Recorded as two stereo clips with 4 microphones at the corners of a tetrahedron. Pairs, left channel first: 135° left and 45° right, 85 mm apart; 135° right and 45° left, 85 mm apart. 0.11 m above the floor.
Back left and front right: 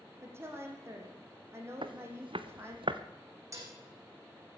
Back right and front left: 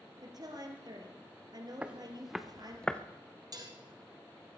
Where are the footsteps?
30° right, 1.3 m; by 3.0 s 60° right, 1.2 m.